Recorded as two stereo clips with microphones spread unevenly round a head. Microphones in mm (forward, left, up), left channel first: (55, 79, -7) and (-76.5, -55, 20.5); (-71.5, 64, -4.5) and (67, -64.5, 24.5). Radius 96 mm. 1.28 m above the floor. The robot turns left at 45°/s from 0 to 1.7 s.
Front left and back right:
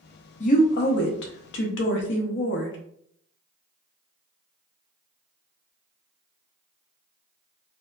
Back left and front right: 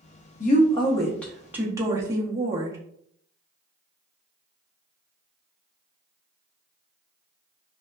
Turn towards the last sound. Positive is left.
turn(degrees=35)